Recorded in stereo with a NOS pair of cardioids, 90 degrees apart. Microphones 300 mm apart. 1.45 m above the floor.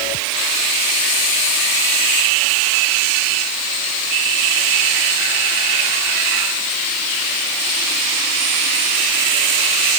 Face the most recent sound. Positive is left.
No sound to turn to.